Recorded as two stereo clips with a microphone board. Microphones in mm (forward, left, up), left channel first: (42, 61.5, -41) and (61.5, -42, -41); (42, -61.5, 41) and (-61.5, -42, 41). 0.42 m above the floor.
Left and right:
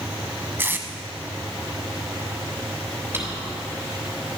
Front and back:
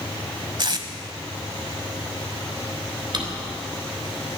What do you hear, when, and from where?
0.6 s tape being pulled: 150° right, 1.1 m
3.1 s a drawer: 150° right, 3 m